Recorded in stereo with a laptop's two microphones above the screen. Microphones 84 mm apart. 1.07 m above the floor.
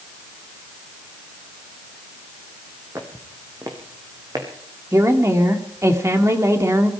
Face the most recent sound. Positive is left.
turn(degrees=-35)  # may be behind; listen again after turning